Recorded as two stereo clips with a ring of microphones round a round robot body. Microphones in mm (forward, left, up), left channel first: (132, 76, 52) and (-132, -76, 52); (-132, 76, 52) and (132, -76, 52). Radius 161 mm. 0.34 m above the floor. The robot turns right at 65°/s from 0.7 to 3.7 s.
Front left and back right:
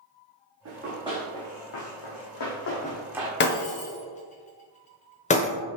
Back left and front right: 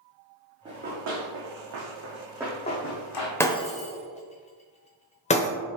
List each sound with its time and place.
0.7 s running footsteps: 105° right, 1.7 m; by 3.3 s 140° left, 1.2 m
3.4 s breaking glass: 70° left, 0.8 m; by 5.5 s 90° left, 0.8 m